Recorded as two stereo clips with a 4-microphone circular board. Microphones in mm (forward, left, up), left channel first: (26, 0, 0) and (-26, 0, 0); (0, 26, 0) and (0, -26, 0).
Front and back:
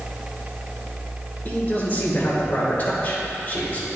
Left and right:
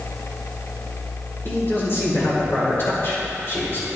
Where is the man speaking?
55° left, 2.5 m.